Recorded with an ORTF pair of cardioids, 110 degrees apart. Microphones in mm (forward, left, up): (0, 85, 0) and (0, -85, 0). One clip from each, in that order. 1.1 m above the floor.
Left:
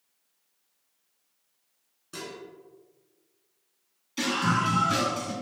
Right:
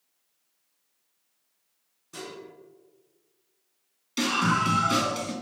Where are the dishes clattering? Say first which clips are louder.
Left 1 dB; 20° left, 1.4 m.